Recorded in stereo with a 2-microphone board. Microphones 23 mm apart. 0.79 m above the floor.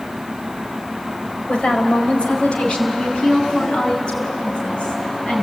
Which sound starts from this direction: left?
A woman speaking, at 1.5 s.